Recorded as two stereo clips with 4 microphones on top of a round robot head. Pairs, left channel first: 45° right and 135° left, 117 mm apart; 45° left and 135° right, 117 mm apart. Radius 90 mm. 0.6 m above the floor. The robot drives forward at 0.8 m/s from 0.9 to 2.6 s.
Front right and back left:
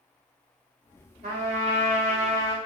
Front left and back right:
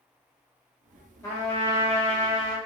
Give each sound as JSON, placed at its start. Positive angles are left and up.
{"t": 1.2, "sound": "a trumpet", "azimuth_deg": 110, "distance_m": 3.5}